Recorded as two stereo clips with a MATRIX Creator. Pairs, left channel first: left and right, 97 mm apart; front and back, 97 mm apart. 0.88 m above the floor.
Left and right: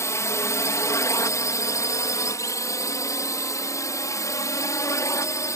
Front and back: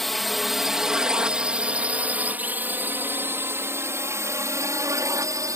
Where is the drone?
85° left; by 5.6 s 140° left.